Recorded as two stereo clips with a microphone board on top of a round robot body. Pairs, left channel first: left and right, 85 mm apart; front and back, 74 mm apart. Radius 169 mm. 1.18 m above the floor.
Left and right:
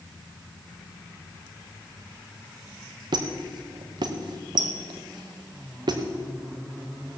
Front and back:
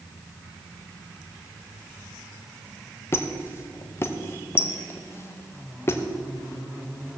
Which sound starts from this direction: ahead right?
A squeak, at 3.1 s.